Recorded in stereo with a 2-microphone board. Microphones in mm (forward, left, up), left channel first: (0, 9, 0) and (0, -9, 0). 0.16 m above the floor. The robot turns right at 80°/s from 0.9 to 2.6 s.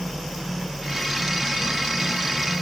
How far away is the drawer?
I don't hear a drawer.